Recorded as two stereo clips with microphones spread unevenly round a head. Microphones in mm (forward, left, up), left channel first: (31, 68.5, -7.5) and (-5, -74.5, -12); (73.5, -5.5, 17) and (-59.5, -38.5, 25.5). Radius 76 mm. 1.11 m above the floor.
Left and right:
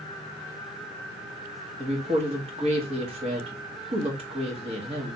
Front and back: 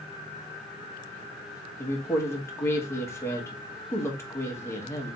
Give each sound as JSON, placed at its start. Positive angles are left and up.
{"t": 1.8, "sound": "a woman speaking", "azimuth_deg": -55, "distance_m": 1.4}